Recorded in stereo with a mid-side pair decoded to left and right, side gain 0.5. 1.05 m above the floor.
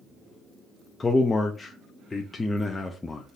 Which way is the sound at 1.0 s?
25° left.